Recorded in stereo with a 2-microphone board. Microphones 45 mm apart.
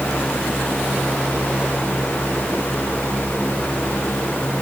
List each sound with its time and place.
Only background noise.